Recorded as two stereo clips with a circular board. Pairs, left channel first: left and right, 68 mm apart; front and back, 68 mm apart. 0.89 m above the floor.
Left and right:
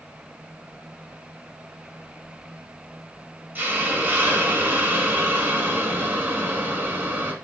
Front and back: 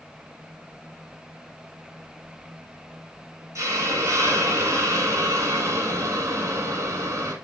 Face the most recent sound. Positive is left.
turn(degrees=-150)